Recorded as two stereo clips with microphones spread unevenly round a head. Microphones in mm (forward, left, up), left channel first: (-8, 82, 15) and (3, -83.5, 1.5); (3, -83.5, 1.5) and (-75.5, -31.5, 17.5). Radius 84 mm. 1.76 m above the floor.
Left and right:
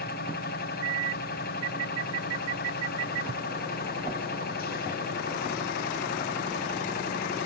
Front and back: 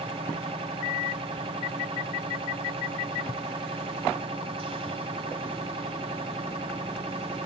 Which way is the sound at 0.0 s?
120° left.